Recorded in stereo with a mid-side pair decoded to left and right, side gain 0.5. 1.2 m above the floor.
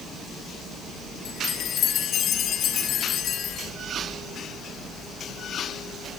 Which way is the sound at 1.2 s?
60° left.